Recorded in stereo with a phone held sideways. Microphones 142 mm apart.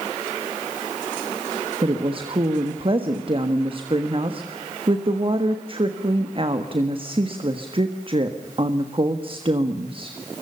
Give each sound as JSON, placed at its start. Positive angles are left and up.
{"t": 1.8, "sound": "a woman speaking", "side_deg": -40, "distance_m": 1.5}